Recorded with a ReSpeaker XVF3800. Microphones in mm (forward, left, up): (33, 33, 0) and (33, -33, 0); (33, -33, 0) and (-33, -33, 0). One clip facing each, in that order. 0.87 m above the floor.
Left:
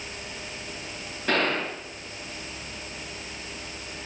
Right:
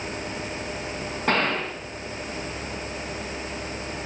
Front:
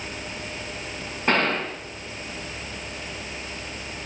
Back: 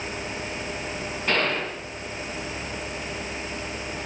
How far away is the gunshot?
About 3 m.